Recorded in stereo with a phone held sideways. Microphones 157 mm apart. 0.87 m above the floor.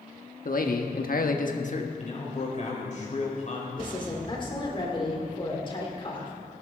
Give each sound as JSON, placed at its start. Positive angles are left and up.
{"t": 0.5, "sound": "a man speaking", "side_deg": 60, "distance_m": 1.4}
{"t": 2.0, "sound": "a man speaking", "side_deg": 50, "distance_m": 4.0}
{"t": 3.8, "sound": "a woman speaking", "side_deg": 30, "distance_m": 3.0}